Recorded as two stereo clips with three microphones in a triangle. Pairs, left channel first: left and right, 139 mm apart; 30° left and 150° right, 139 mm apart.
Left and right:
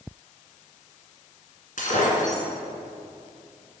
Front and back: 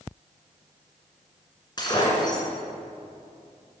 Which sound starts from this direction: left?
Breaking glass, at 1.8 s.